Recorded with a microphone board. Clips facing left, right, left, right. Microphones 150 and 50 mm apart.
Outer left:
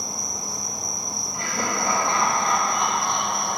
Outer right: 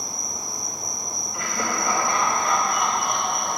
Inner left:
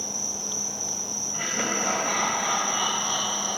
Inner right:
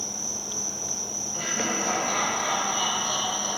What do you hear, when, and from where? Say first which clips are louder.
0.0 s an insect: outer left 1 dB, inner left 1 dB; 80° left, 1.2 m
1.3 s laughter: even, even; 30° left (ahead or behind), 1.1 m